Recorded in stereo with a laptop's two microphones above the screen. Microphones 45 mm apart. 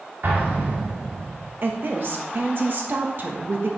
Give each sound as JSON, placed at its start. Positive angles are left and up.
{"t": 0.2, "sound": "an explosion", "side_deg": -50, "distance_m": 2.0}
{"t": 1.6, "sound": "a woman speaking", "side_deg": -50, "distance_m": 1.2}